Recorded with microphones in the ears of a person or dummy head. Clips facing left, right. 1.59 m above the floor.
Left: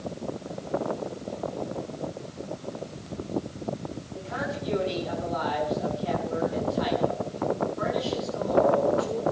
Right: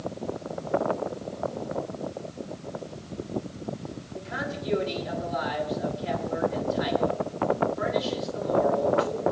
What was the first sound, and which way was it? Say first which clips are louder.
A man speaking: left 1 dB; 15° right (ahead or behind).